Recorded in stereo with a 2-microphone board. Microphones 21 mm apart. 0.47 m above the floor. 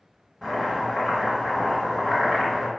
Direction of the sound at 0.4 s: 10° left (ahead or behind).